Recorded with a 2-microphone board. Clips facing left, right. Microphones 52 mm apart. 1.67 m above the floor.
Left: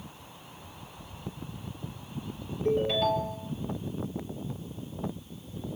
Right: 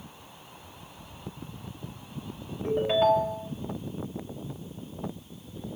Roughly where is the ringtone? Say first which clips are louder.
Right 3 dB; right.